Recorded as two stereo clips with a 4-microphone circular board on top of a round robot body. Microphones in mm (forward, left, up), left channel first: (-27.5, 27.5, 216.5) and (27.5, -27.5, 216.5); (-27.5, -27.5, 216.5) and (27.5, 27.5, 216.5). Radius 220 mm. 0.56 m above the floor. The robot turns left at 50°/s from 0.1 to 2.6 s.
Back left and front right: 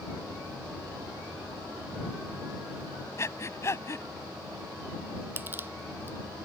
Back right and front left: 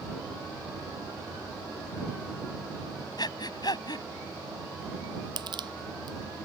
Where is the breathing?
170° right.